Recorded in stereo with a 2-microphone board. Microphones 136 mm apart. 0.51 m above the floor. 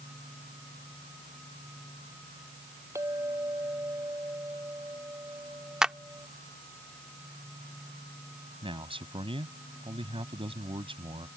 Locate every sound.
3.0 s a clink: 20° right (ahead or behind)
5.8 s a clap: 5° right (ahead or behind)
8.6 s a man speaking: 40° right (ahead or behind)